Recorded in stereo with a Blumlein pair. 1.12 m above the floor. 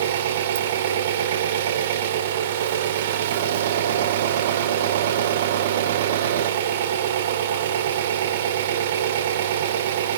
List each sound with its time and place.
0.0 s an engine running: 55° right, 1.8 m